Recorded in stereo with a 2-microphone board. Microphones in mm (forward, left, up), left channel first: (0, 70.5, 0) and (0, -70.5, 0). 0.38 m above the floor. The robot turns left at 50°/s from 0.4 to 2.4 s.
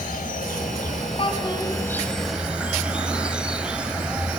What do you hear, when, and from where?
0.0 s an insect: 90° left, 1.0 m; by 4.4 s 10° right, 1.0 m
1.2 s a child speaking: 40° left (ahead or behind), 3 m; by 1.8 s 15° left (ahead or behind), 3 m